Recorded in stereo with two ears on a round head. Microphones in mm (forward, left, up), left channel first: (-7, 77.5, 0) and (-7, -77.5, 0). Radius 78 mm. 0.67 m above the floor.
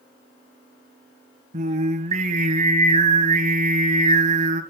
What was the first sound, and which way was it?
Singing, 40° right (ahead or behind).